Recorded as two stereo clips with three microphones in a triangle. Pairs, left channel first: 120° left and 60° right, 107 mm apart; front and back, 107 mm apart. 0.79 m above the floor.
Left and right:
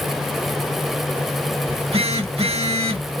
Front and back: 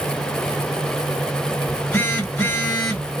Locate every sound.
1.7 s a phone buzzing: 65° right, 1.4 m